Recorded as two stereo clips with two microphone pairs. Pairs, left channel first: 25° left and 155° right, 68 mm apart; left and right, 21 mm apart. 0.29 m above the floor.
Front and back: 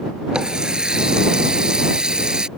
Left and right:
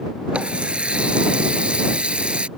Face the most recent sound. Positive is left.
turn(degrees=-75)